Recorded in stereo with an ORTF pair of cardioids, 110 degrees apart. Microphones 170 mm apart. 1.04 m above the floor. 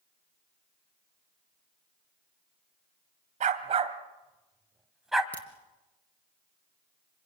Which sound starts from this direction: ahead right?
A dog barking, at 3.4 s.